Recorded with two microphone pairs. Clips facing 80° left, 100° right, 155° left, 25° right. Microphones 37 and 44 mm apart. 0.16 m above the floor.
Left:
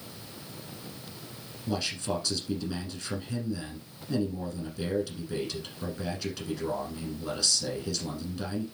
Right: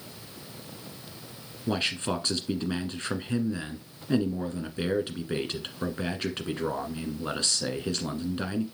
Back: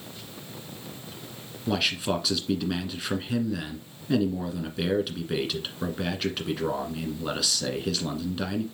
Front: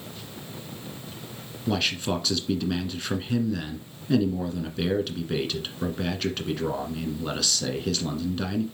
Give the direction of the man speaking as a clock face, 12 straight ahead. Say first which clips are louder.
Right 3 dB, even; 4 o'clock.